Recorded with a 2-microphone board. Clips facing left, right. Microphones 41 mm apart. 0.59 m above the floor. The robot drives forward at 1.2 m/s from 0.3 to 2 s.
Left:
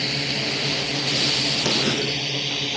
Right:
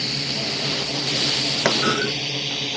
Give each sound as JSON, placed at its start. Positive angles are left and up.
{"t": 0.0, "sound": "a drone", "side_deg": 20}
{"t": 1.6, "sound": "a clunk", "side_deg": -85}